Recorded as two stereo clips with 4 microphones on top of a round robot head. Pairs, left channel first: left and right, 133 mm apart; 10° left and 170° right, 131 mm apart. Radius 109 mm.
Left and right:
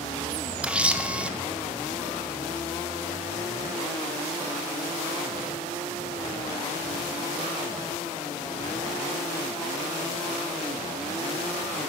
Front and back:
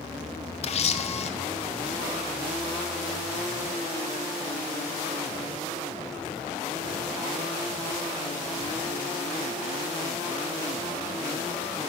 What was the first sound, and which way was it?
A camera shutter, 10° right.